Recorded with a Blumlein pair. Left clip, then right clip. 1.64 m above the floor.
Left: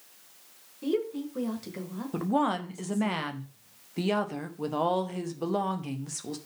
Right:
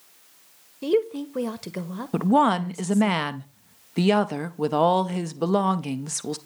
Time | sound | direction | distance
0.8 | a woman speaking | 25° right | 1.1 m
2.1 | a woman speaking | 70° right | 0.7 m